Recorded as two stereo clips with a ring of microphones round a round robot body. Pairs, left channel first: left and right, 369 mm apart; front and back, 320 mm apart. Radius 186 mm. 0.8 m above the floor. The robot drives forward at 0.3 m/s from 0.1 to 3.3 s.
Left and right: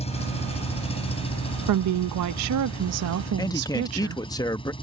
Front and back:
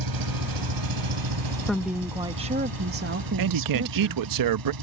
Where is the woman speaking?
85° right; by 4.2 s 135° right.